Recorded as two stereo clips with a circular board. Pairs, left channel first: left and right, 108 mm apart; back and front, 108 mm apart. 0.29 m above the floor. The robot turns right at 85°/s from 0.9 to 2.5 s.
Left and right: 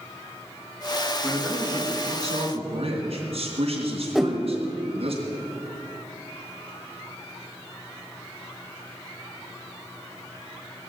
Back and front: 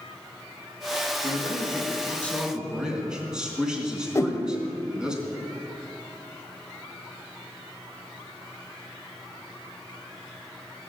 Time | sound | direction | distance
1.2 | a man speaking | 170° left | 3.5 m
4.2 | a whoosh | 175° right | 1.0 m